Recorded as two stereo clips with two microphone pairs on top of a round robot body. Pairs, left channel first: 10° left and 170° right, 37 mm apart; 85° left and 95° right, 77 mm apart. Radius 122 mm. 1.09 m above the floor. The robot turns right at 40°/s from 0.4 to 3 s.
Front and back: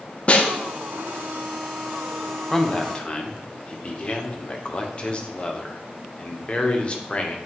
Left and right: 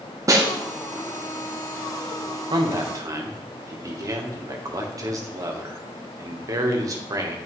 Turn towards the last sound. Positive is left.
turn(degrees=-50)